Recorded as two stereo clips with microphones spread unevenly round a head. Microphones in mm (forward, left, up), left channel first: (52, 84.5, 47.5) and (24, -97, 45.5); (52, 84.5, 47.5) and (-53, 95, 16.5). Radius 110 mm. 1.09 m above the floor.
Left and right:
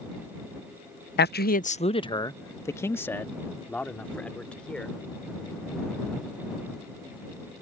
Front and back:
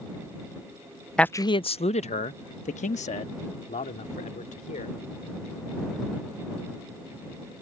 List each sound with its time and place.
1.2 s a man speaking: 90° left; by 5.0 s 5° right